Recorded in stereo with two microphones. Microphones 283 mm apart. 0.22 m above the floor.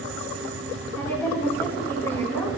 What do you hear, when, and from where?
1.0 s a woman speaking: 10° left (ahead or behind), 2.5 m